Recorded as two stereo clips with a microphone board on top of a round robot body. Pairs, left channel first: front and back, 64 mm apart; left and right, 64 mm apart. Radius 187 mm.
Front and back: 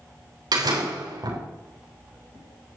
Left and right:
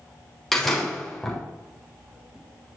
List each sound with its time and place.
0.5 s a door slam: 175° left, 4 m